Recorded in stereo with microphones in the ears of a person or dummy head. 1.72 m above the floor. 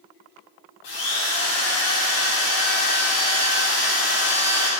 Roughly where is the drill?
Left.